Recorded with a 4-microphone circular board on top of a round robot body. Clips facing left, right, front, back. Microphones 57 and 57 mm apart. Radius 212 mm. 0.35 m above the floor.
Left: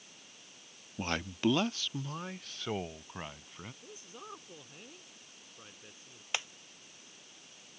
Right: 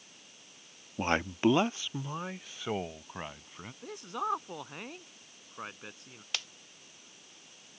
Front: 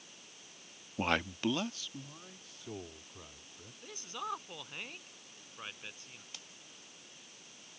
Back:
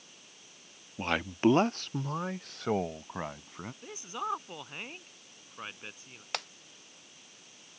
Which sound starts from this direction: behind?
Breaking glass, at 6.3 s.